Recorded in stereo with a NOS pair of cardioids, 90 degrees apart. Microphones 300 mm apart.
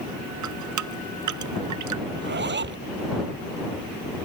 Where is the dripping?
70° right.